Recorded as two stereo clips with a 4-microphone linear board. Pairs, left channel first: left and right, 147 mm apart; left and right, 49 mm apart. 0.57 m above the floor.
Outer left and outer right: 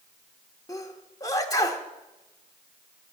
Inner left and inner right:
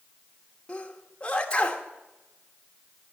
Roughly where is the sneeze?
Left.